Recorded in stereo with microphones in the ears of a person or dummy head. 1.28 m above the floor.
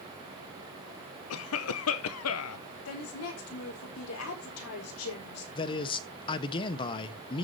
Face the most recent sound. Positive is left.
turn(degrees=25)  # may be behind; listen again after turning